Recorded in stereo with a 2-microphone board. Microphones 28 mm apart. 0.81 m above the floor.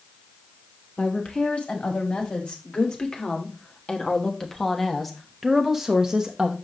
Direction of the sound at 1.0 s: 45° left (ahead or behind).